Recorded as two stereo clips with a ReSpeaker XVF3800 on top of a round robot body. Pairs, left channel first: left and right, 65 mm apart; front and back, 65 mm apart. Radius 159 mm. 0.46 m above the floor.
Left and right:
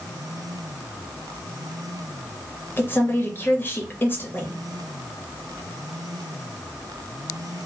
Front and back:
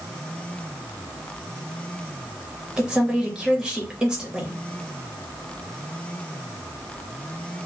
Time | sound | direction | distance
2.8 | a woman speaking | 115° left | 1.3 m